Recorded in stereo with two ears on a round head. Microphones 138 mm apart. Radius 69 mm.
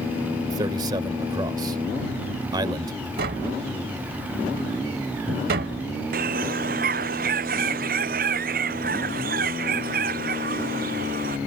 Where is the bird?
65° right (ahead or behind).